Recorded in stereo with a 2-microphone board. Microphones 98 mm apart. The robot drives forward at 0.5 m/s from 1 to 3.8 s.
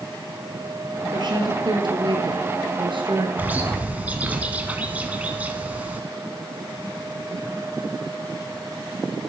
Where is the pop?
I don't hear a pop.